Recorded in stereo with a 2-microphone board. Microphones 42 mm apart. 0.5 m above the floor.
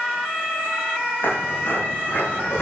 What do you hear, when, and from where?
1.2 s footsteps: 55° left (ahead or behind), 9.5 m; by 2.6 s 60° left (ahead or behind), 9.5 m